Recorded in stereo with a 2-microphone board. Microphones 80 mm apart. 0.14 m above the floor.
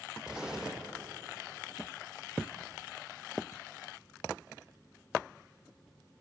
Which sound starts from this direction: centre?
An explosion, at 0.3 s.